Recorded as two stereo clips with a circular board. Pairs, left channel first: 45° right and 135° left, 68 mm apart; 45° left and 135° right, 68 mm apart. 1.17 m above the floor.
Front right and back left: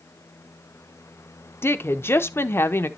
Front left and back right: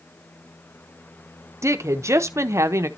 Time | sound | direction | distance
1.6 | a woman speaking | 95° right | 0.9 m